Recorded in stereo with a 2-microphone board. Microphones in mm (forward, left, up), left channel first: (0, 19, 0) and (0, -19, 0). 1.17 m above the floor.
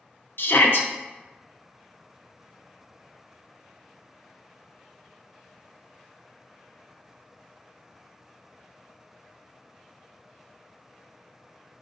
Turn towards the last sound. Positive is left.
turn(degrees=65)  # may be behind; listen again after turning